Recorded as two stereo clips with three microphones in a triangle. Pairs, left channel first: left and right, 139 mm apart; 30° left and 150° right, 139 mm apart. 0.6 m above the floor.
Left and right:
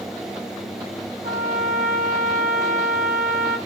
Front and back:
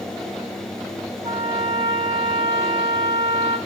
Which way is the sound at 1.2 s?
95° right.